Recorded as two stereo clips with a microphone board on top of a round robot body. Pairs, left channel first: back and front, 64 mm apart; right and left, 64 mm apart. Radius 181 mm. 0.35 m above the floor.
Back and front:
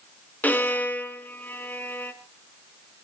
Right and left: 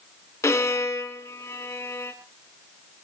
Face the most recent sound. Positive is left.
turn(degrees=-125)